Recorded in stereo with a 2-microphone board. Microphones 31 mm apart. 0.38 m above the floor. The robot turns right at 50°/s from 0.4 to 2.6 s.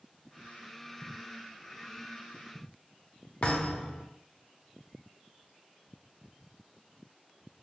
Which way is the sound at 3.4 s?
45° left (ahead or behind).